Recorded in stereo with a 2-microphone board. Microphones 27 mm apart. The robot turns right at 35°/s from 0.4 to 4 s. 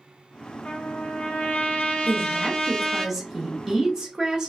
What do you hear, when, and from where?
0.7 s a trumpet: 80° left, 0.7 m; by 3.1 s 165° left, 0.7 m
2.1 s a woman speaking: 160° left, 1.1 m; by 4.5 s 135° right, 1.1 m